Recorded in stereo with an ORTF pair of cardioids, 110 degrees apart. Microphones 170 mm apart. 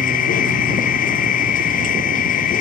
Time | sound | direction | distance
0.0 | a machine running | 60° left | ?